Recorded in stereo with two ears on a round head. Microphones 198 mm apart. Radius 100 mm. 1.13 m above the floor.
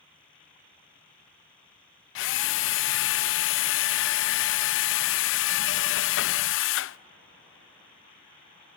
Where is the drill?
55° left (ahead or behind), 0.6 m.